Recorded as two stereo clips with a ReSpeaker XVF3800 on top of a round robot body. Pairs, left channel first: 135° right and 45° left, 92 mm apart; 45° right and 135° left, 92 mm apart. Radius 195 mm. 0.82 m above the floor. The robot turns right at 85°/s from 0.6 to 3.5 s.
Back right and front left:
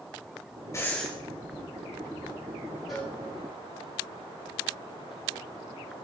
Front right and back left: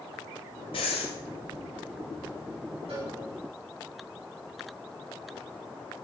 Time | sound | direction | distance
0.7 | breathing | 75° right | 0.9 m
2.9 | a cowbell | 135° left | 7 m